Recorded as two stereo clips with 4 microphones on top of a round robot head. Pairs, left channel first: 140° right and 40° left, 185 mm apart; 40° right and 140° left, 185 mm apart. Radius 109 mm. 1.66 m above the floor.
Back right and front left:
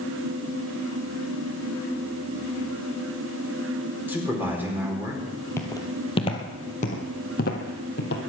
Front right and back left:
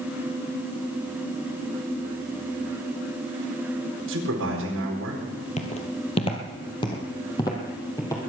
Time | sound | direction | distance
4.1 | a man speaking | 120° left | 4.5 m
5.6 | footsteps | 70° right | 1.9 m